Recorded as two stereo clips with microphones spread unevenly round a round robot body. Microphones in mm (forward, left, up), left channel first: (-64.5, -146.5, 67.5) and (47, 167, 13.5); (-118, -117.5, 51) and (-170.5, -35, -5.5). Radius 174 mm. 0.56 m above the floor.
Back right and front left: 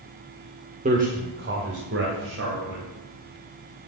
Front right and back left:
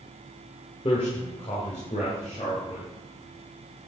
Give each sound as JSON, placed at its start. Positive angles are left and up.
{"t": 0.8, "sound": "a man speaking", "azimuth_deg": 10, "distance_m": 1.4}